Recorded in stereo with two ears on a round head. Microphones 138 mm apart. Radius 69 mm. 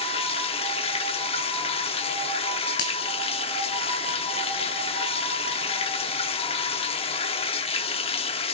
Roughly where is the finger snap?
Left.